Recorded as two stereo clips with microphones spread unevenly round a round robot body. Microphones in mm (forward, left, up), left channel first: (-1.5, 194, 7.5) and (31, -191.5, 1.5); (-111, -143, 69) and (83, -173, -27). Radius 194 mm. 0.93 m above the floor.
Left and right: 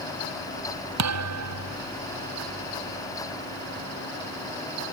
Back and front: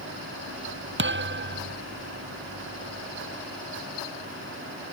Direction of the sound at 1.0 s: 35° right.